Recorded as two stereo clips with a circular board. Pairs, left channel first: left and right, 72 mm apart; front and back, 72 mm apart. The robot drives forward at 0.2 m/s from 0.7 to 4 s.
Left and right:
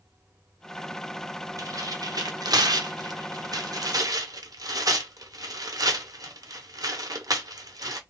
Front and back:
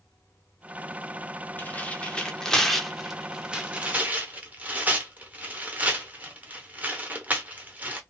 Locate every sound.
1.6 s tearing paper: 65° right, 0.6 m; by 8.0 s 115° right, 0.6 m